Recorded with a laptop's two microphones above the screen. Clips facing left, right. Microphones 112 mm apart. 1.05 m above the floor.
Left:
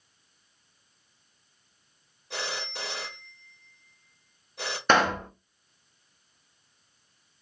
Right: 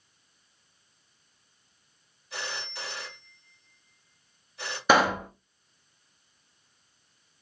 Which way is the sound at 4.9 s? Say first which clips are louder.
Right 1 dB; 5° right (ahead or behind).